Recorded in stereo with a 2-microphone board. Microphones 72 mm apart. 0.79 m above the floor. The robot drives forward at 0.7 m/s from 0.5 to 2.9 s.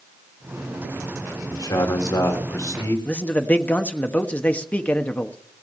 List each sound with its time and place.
1.5 s a man speaking: 65° left (ahead or behind), 2.5 m; by 3.0 s 50° left (ahead or behind), 3 m
3.0 s a man speaking: 20° left (ahead or behind), 1.2 m